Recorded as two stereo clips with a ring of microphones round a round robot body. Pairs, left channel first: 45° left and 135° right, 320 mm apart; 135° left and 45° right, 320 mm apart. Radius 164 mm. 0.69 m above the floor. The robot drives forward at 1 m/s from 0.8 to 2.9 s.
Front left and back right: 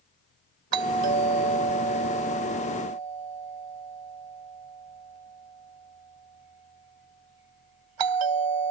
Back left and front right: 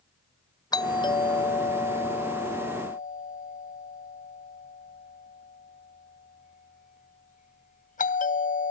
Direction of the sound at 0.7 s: 145° right.